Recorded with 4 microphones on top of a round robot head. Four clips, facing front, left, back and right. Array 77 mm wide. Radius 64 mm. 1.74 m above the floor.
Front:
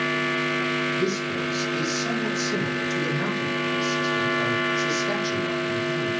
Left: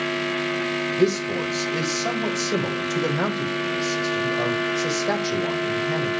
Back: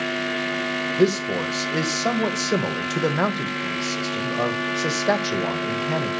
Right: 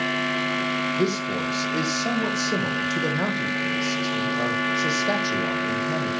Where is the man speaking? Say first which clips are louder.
Left 3 dB, back 5 dB; 175° left, 1.4 m.